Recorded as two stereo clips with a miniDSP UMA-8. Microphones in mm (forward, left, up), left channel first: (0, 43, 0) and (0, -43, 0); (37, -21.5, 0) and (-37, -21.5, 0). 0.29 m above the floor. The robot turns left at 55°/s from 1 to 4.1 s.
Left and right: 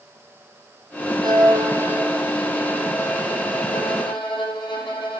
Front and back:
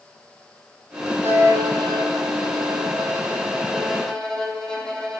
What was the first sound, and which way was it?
A violin, 120° right.